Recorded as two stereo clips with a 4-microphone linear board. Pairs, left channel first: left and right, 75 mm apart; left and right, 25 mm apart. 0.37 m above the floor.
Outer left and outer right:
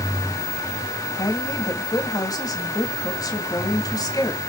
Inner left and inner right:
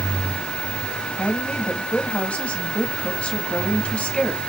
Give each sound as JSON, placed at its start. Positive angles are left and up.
{"t": 1.2, "sound": "a woman speaking", "side_deg": 55, "distance_m": 2.0}